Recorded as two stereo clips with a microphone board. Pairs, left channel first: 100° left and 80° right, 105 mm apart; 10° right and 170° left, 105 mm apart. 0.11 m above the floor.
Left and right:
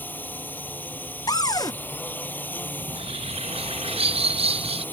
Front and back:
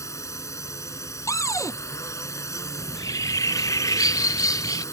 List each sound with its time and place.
0.0 s a drone: 35° left
1.3 s a cupboard door: 50° left
2.8 s a bird: 70° right